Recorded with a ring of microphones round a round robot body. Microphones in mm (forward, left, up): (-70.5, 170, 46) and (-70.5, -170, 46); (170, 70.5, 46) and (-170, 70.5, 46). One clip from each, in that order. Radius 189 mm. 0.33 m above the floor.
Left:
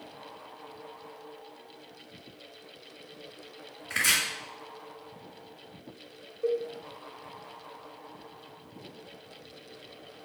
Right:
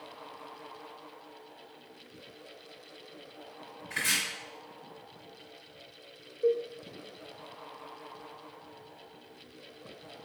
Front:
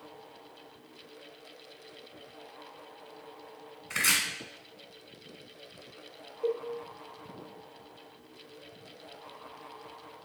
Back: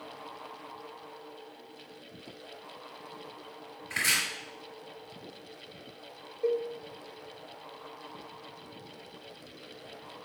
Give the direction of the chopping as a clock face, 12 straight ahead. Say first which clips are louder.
Left 4 dB, front 1 dB; 11 o'clock.